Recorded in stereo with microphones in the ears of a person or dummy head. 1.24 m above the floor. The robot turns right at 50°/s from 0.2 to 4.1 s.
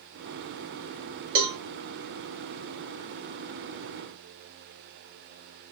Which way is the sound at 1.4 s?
50° right (ahead or behind).